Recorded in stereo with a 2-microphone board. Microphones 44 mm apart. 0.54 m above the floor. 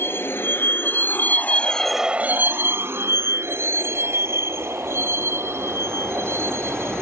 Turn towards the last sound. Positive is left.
turn(degrees=-80)